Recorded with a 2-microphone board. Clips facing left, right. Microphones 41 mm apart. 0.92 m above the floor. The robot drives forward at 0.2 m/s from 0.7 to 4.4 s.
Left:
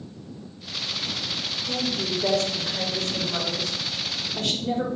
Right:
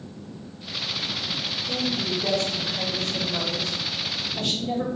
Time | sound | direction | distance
1.7 | a woman speaking | 55° left (ahead or behind) | 3 m